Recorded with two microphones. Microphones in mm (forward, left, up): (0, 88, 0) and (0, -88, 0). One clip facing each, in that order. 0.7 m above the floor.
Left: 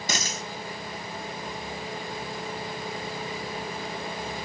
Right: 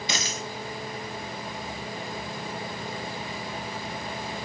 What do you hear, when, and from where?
0.1 s a dropped coin: 40° left (ahead or behind), 0.9 m